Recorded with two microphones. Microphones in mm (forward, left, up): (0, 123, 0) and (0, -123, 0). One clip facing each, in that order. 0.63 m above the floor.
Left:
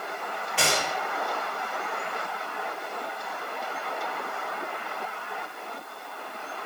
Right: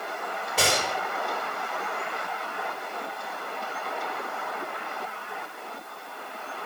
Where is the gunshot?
45° right (ahead or behind), 3 m.